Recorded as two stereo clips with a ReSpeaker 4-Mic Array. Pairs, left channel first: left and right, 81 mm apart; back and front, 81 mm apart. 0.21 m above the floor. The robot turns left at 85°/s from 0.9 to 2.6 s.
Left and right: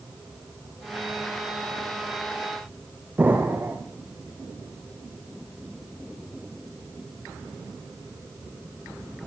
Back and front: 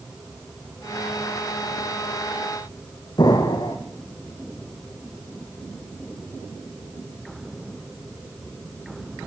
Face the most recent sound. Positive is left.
turn(degrees=-155)